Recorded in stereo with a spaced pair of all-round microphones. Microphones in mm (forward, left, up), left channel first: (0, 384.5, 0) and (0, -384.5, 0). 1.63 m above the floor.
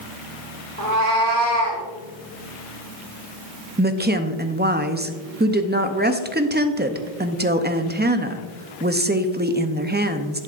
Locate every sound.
0.8 s a cat meowing: 50° right (ahead or behind), 1.9 m; by 1.8 s 45° right (ahead or behind), 1.9 m
3.8 s a woman speaking: 15° right (ahead or behind), 0.6 m